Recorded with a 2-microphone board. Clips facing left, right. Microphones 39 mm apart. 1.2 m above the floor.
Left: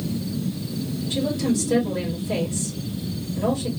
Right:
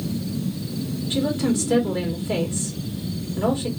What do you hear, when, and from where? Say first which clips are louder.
1.1 s a woman speaking: right 1 dB; 40° right (ahead or behind), 1.8 m